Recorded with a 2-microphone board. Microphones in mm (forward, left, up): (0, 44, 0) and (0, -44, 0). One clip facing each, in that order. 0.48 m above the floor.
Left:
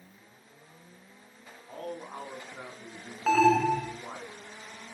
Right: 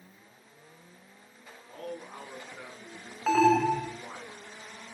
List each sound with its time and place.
1.7 s a man speaking: 45° left (ahead or behind), 5 m
3.3 s an alarm: 5° right (ahead or behind), 1.5 m